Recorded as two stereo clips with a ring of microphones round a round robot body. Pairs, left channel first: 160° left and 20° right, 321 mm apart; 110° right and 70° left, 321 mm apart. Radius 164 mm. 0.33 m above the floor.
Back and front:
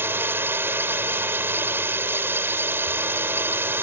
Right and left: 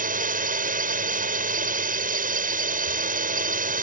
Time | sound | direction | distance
0.0 | a drone | 50° left | ?